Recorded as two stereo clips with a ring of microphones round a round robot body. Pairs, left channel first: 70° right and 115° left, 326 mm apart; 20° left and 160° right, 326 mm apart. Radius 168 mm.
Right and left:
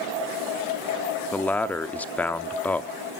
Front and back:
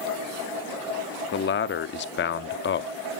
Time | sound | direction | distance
1.3 | a man speaking | 15° left | 0.7 m